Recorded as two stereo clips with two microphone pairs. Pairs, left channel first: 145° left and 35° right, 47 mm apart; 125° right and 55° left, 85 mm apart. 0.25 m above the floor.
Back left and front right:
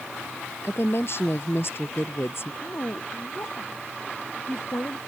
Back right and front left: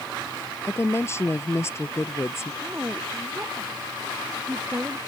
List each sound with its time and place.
0.6 s a woman speaking: 175° left
2.6 s a woman speaking: 125° left